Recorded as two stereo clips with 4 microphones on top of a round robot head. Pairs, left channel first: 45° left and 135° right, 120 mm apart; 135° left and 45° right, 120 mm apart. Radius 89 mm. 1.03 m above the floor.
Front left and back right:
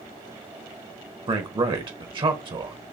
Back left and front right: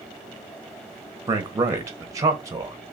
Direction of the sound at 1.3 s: 100° right.